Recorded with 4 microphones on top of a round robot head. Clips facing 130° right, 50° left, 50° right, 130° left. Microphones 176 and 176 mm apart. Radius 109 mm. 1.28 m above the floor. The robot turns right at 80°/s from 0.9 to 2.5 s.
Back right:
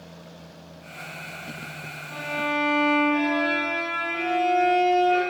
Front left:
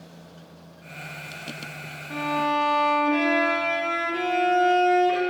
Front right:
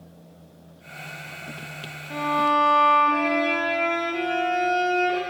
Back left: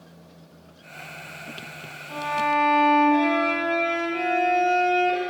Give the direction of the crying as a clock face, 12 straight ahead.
I don't hear crying.